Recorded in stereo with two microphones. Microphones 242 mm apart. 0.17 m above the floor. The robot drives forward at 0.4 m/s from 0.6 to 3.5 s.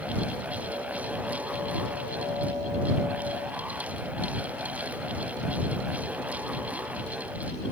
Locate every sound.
Only background noise.